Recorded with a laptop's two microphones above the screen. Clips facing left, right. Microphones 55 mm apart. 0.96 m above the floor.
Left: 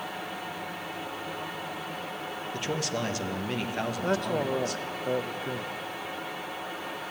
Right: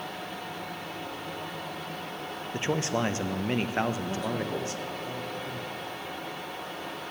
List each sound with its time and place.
0.0 s a fan: 5° left (ahead or behind), 0.8 m
2.5 s a man speaking: 25° right (ahead or behind), 0.5 m
4.0 s a man speaking: 60° left (ahead or behind), 0.5 m